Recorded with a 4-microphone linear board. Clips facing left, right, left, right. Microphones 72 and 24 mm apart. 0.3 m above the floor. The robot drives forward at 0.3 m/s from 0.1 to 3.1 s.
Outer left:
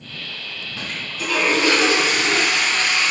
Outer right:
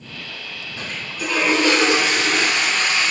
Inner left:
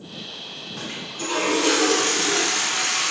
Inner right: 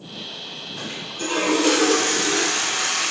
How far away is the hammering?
No hammering in this recording.